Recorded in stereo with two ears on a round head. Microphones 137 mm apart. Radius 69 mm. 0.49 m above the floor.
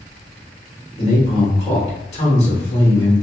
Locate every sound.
1.0 s a man speaking: 40° left (ahead or behind), 1.5 m